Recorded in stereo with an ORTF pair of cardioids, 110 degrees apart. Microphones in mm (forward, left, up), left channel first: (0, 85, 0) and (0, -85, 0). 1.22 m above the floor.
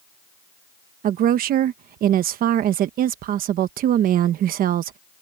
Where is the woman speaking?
65° right.